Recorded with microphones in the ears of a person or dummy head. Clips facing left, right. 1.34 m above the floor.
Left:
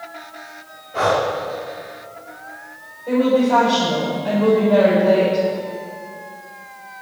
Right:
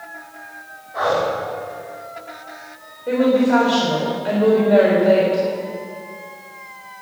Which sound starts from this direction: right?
A woman speaking, at 3.1 s.